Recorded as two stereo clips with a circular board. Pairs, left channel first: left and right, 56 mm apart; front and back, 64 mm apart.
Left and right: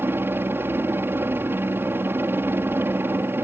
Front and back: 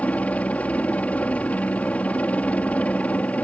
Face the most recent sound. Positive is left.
turn(degrees=-60)